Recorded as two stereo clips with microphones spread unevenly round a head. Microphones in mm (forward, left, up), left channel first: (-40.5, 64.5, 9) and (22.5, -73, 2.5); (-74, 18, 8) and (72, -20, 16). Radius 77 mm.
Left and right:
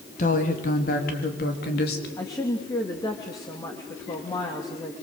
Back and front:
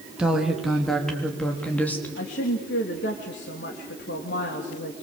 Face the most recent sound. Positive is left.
turn(degrees=180)